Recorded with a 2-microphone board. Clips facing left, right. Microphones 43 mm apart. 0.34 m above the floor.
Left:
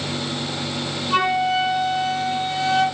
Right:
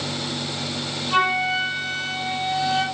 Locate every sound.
1.1 s a flute: 5° right (ahead or behind), 6 m